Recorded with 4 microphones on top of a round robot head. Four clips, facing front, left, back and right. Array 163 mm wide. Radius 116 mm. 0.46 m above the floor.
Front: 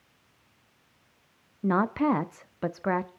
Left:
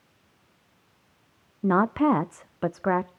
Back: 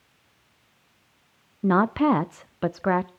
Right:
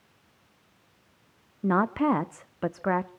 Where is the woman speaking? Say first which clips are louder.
Left 3 dB, back 4 dB; 140° left, 0.7 m.